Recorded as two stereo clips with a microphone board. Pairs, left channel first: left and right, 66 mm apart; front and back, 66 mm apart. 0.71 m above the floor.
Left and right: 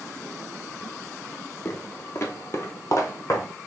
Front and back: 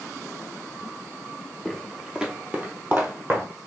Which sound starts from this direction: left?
Footsteps, at 1.6 s.